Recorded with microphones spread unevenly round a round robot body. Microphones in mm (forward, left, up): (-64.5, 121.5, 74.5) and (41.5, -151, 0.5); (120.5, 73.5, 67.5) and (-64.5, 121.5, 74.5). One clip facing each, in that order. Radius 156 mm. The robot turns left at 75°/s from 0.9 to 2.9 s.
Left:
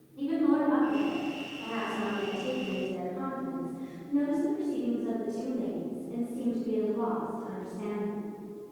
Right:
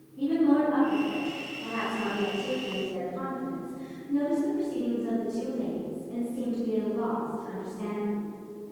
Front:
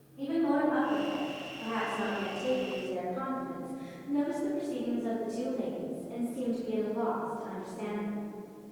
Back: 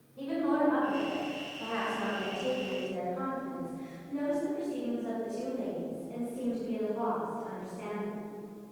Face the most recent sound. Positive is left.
turn(degrees=30)